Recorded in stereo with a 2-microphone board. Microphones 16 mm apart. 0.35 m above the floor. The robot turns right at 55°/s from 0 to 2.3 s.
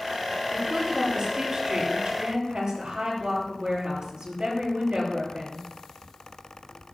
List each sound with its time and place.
0.5 s a woman speaking: 170° left, 8 m; by 5.6 s 95° right, 8 m